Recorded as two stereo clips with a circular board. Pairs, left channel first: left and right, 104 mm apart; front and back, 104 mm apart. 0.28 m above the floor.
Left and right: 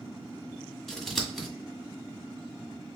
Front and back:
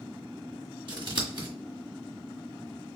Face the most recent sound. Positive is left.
turn(degrees=175)